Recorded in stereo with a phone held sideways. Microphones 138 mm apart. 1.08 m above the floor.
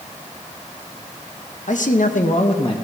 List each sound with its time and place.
1.7 s a man speaking: 65° left (ahead or behind), 1.0 m; by 2.8 s 35° left (ahead or behind), 1.1 m